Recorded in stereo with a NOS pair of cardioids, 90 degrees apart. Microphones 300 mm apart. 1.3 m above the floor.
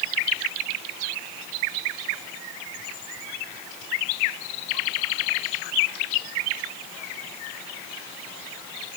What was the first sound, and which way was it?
Only background noise.